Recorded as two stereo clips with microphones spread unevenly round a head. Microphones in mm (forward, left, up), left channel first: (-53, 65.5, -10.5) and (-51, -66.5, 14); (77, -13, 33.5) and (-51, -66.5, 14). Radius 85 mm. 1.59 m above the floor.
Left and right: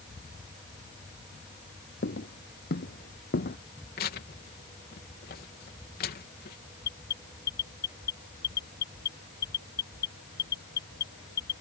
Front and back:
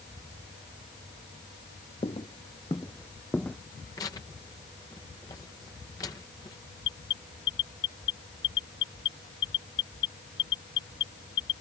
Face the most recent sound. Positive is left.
turn(degrees=45)